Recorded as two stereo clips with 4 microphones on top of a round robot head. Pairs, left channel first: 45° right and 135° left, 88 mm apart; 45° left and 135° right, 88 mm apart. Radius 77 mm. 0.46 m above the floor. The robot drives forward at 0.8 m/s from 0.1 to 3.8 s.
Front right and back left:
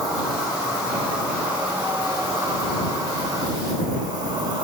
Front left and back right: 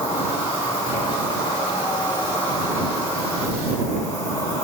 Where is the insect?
45° left, 3.5 m; by 4.6 s 105° left, 3 m.